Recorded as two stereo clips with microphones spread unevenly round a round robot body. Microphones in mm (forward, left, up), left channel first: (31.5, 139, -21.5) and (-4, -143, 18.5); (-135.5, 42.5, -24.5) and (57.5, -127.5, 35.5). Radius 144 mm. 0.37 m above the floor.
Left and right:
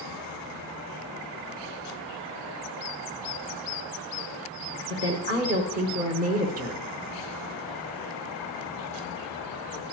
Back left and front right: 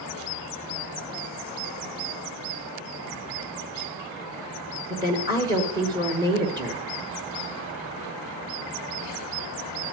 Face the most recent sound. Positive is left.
turn(degrees=-125)